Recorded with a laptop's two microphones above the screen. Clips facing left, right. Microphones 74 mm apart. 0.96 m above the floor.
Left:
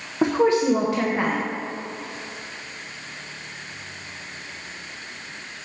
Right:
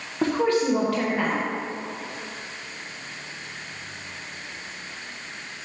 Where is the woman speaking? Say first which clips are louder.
Left 3 dB; 20° left (ahead or behind), 0.7 m.